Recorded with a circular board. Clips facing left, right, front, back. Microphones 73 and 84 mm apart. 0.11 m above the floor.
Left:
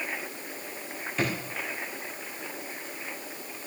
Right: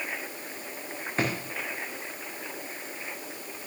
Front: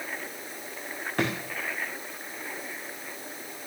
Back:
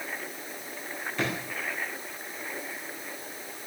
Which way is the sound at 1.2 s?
40° right.